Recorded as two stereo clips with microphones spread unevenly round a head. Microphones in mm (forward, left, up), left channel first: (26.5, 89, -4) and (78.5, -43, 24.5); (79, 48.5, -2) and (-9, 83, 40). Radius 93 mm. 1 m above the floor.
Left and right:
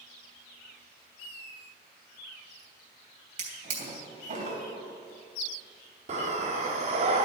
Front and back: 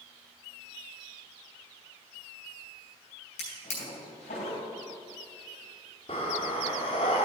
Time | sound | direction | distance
3.4 | a drawer | 35° right | 3 m
6.1 | breathing | 90° right | 0.7 m